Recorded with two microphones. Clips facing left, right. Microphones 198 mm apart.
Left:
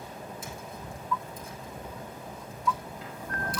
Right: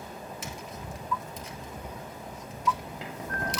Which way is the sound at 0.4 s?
85° right.